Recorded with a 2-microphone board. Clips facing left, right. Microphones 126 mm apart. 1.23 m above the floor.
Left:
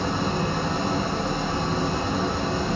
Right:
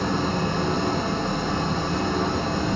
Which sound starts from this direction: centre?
An engine running, at 0.0 s.